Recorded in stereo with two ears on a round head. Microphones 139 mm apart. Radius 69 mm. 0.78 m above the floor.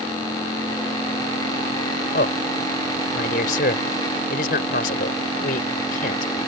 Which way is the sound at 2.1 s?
60° left (ahead or behind).